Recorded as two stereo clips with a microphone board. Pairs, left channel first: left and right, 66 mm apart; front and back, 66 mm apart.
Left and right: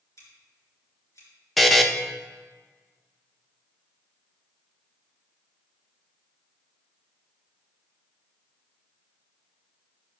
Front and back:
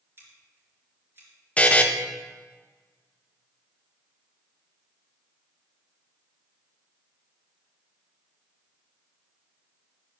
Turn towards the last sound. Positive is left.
turn(degrees=5)